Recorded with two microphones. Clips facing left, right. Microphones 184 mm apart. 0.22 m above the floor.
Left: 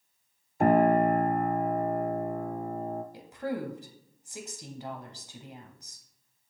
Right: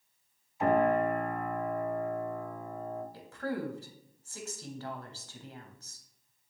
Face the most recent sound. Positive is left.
turn(degrees=15)  # may be behind; listen again after turning